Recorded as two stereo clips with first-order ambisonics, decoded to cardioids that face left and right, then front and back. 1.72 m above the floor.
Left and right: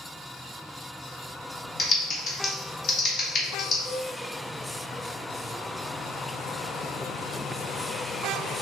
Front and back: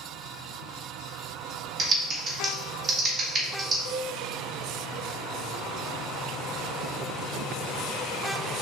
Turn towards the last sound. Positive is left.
turn(degrees=20)